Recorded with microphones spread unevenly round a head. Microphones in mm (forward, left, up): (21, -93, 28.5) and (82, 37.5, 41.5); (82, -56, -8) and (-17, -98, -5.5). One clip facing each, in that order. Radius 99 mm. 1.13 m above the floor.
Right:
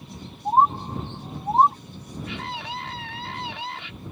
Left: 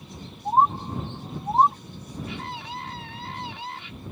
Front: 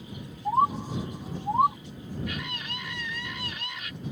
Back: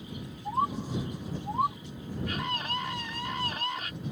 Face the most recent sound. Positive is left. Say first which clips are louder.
# right 4 dB, back 3 dB
turn(degrees=-110)